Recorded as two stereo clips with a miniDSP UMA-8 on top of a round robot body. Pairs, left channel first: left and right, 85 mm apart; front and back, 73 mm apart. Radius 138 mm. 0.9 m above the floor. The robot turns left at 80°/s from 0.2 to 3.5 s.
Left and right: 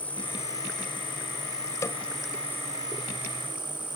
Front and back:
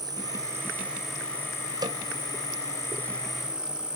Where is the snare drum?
150° left; by 2.0 s 135° left.